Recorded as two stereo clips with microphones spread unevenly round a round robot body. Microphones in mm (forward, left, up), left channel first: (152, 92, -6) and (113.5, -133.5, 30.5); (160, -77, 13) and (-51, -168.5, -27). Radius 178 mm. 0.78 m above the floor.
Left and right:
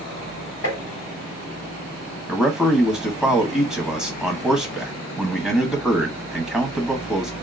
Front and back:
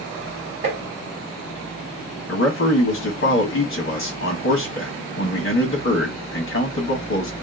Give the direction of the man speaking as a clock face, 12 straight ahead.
12 o'clock.